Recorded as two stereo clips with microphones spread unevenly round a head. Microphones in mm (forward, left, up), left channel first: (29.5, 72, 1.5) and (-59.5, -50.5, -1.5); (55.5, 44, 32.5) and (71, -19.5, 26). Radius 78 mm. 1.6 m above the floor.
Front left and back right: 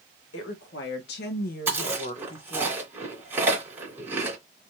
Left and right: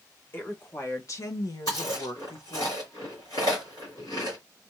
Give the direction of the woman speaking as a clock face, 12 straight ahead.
10 o'clock.